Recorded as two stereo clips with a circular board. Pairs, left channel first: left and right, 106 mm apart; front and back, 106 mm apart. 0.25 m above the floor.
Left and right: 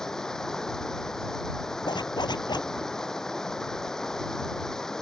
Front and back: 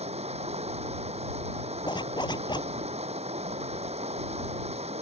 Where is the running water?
175° left.